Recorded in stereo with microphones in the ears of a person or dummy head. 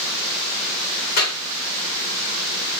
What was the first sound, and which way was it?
A clap, 50° left (ahead or behind).